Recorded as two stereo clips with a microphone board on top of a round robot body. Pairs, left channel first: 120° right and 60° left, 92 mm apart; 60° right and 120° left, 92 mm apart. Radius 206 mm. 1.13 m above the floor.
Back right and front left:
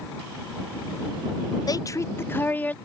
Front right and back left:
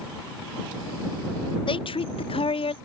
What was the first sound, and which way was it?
A woman speaking, 80° right.